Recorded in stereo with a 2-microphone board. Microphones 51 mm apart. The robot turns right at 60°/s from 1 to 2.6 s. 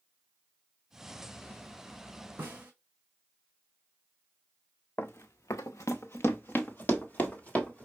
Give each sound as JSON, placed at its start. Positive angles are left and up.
{"t": 2.4, "sound": "a snare drum", "side_deg": -40, "distance_m": 1.2}
{"t": 5.0, "sound": "running footsteps", "side_deg": 50, "distance_m": 0.6}